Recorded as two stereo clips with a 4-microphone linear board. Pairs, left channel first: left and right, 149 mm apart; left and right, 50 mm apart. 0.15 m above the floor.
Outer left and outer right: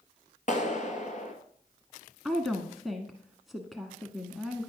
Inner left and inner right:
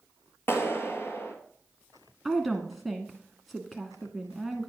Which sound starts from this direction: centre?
A woman speaking, at 2.2 s.